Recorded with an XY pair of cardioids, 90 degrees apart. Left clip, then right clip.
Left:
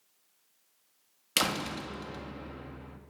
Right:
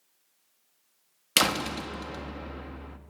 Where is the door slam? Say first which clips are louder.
Right 5 dB; 40° right, 1.8 m.